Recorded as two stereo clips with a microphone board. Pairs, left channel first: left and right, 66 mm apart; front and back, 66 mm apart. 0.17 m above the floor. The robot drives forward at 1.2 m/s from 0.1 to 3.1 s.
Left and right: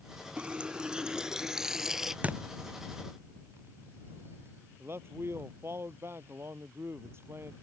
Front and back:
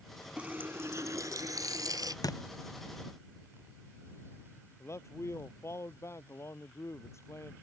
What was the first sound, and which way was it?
A running tap, 135° right.